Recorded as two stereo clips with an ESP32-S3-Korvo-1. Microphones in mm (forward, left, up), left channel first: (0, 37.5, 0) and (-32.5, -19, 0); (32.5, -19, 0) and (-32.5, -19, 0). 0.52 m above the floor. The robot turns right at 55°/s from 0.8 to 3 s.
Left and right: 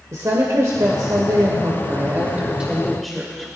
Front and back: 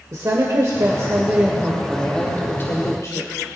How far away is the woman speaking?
About 1.5 m.